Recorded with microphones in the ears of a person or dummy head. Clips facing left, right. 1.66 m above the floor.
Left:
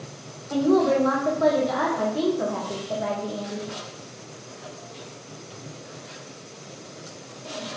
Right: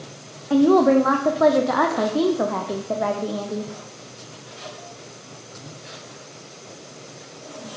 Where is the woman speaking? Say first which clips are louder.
Right 5 dB; 75° right (ahead or behind), 0.6 m.